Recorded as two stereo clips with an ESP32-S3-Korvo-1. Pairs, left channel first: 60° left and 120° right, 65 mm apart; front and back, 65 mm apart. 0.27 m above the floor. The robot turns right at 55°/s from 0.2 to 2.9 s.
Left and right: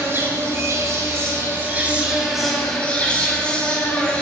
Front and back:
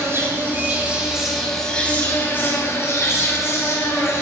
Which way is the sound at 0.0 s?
155° right.